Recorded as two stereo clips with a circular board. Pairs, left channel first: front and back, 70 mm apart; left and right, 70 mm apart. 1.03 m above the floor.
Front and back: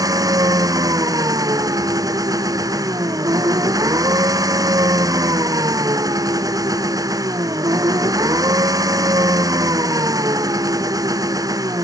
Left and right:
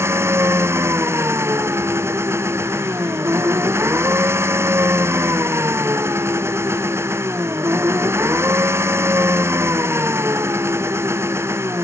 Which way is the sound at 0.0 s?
145° right.